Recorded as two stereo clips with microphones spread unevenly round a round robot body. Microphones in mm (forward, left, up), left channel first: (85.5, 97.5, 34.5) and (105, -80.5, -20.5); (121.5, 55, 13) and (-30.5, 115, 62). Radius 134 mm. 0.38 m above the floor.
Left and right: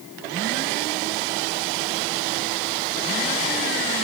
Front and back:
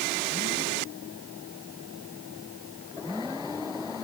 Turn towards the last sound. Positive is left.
No sound to turn to.